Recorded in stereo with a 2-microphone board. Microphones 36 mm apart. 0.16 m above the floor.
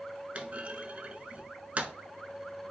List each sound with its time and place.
0.3 s a clunk: 40° right (ahead or behind), 0.6 m